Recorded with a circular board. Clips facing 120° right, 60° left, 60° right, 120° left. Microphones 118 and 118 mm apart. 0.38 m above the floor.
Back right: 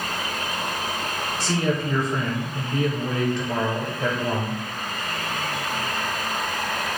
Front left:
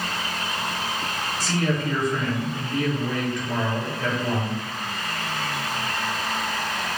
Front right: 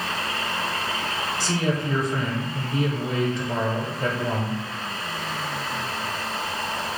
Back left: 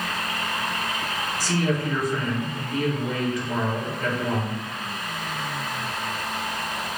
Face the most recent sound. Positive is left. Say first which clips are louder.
# back right 1 dB, back left 1 dB
turn(degrees=-90)